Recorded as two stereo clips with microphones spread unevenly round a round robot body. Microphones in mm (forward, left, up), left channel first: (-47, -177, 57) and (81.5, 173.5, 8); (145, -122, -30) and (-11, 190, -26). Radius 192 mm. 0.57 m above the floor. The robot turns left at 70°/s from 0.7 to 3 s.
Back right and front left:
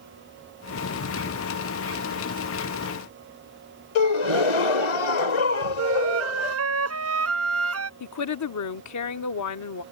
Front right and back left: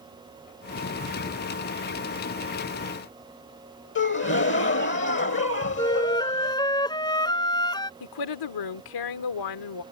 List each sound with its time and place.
4.0 s a gasp: 125° right
5.8 s a flute: 15° left
8.0 s a woman speaking: 65° right